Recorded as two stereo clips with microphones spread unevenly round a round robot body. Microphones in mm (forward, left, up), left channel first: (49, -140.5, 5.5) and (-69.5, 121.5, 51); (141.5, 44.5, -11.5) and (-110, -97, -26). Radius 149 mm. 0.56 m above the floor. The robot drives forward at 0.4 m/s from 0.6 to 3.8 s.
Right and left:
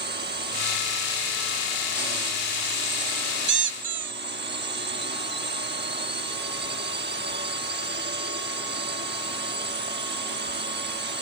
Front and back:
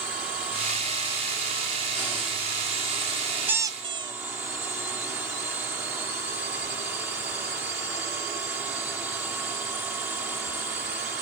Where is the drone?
125° left; by 11.2 s 130° left.